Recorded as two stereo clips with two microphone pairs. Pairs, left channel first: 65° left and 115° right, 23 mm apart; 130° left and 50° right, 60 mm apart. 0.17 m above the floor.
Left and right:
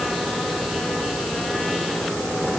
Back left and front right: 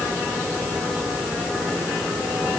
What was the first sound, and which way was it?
Only background noise.